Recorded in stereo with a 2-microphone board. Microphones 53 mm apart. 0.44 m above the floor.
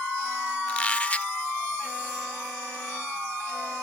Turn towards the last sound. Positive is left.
turn(degrees=25)  # may be behind; listen again after turning